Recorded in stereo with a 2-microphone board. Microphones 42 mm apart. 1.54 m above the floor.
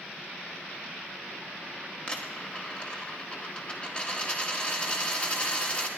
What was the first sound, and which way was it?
A dropped coin, 25° left (ahead or behind).